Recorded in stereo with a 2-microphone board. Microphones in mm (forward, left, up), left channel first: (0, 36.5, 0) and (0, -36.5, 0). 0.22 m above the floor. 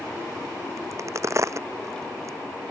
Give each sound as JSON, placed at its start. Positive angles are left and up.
{"t": 0.8, "sound": "a crack", "side_deg": -40}